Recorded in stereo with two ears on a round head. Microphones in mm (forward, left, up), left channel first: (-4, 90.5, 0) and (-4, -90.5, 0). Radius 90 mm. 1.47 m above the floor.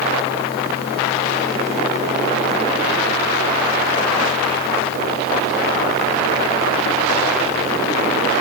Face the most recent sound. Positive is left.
No sound to turn to.